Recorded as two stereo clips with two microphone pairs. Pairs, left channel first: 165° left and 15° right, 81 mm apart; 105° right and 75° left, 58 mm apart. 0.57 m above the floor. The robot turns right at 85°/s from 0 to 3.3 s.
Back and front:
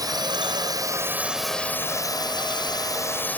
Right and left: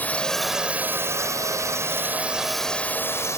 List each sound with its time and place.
0.0 s a drone: 50° right; by 3.4 s 130° right